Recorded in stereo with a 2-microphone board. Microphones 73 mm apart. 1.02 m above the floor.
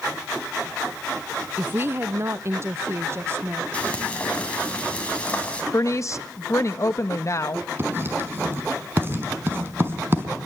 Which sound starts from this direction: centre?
Frying, at 3.7 s.